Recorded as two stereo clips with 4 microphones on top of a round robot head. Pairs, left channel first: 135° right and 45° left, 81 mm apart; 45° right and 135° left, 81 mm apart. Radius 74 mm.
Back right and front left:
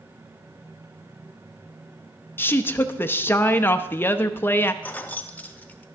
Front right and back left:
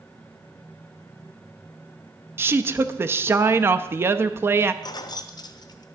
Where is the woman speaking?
175° left, 0.6 m.